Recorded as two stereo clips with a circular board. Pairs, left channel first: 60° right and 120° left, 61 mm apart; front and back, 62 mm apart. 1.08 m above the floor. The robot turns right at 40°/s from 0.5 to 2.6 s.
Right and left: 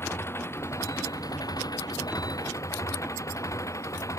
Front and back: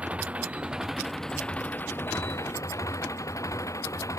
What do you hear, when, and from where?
0.0 s an engine running: 110° right; by 4.2 s 25° right